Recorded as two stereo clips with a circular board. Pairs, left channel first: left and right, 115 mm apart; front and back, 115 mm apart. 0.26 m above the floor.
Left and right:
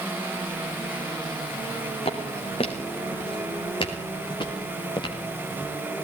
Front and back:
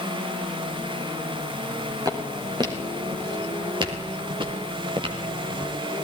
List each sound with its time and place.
2.0 s footsteps: 125° left, 5.5 m; by 5.8 s 145° left, 4.5 m